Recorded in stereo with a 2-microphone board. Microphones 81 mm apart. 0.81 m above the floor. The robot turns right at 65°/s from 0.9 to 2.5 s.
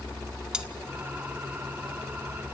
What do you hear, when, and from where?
0.5 s cutlery clinking: 10° right (ahead or behind), 1.0 m